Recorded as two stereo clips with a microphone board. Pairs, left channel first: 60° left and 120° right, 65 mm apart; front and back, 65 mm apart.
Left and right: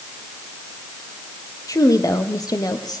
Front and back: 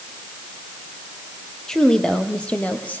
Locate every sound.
1.7 s a woman speaking: 80° left, 5 m; by 3.0 s 65° left, 6 m